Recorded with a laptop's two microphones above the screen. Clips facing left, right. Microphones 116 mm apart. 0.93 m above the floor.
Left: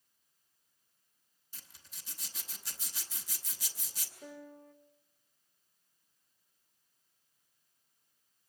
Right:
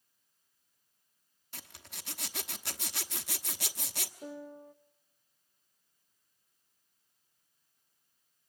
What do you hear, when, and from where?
1.5 s a zipper: 70° right (ahead or behind), 1.0 m
4.2 s a piano: 20° right (ahead or behind), 0.7 m